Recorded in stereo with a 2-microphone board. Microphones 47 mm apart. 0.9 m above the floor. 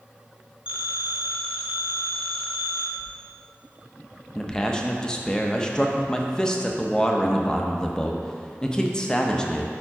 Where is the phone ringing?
25° right (ahead or behind), 0.9 m.